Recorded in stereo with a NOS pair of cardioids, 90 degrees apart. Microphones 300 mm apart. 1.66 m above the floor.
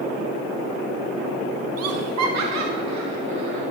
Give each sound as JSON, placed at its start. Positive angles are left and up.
{"t": 1.8, "sound": "laughter", "azimuth_deg": -60, "distance_m": 0.7}